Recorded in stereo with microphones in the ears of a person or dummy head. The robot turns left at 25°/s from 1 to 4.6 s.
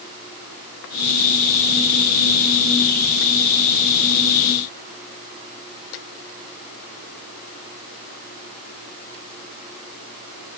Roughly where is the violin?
No violin in this recording.